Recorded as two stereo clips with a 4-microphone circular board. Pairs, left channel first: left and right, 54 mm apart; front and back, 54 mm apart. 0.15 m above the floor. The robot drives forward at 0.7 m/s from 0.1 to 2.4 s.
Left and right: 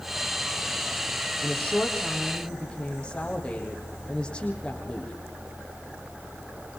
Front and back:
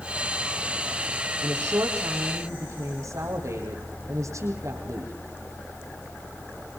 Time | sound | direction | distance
1.4 | a woman speaking | 160° left | 5.5 m